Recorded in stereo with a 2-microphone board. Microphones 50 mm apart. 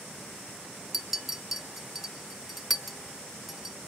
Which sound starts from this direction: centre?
A clink, at 0.9 s.